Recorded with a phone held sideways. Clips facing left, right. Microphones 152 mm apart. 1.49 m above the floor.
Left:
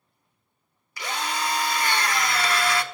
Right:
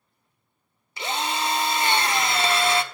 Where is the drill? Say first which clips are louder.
Right 2 dB; 25° right (ahead or behind), 0.9 m.